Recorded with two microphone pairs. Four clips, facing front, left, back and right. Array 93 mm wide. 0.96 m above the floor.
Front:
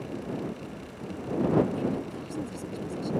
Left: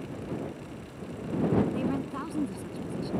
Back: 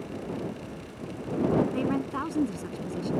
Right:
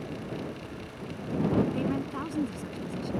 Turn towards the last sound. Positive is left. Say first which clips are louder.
# even, back 2 dB
turn(degrees=180)